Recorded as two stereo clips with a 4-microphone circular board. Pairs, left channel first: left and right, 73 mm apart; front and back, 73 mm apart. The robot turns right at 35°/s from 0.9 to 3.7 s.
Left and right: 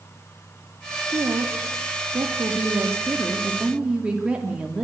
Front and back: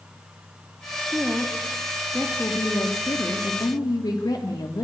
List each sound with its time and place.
1.0 s a woman speaking: 110° right, 3 m; by 4.8 s 15° right, 3 m